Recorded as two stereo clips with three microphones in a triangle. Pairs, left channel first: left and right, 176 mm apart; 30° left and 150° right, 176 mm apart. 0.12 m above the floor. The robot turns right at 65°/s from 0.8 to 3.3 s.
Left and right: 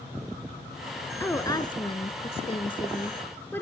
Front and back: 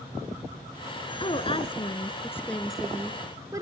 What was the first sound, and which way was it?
A woman speaking, 20° left.